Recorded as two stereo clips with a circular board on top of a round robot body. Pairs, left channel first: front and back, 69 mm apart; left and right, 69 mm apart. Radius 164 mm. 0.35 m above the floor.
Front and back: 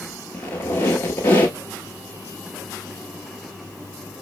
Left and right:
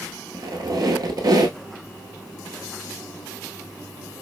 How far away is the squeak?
About 0.6 m.